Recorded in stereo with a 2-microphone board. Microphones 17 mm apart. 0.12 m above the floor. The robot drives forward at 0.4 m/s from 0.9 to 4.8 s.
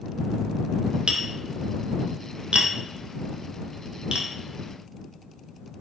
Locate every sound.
1.1 s tapping: 70° right (ahead or behind), 1.7 m; by 4.3 s 55° right (ahead or behind), 1.9 m